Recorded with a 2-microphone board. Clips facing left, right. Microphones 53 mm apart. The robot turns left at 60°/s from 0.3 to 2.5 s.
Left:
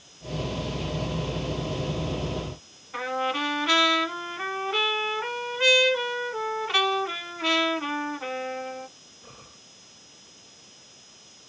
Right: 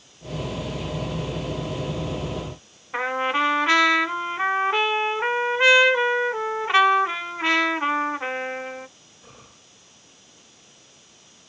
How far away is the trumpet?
About 0.6 m.